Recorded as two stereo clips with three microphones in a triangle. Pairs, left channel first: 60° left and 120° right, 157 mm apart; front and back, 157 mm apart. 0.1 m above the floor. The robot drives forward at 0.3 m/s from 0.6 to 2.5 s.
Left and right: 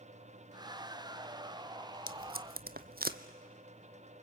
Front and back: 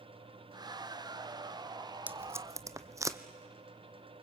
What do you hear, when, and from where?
2.1 s tape being pulled: 100° right, 0.7 m; by 3.2 s 110° right, 0.8 m